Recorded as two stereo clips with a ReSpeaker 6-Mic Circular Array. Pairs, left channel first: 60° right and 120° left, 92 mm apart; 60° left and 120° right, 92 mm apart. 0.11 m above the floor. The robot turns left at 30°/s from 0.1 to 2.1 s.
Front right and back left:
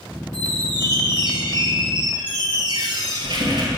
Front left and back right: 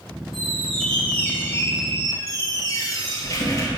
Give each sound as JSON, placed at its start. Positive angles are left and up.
{"t": 0.3, "sound": "a squeak", "azimuth_deg": 155, "distance_m": 1.5}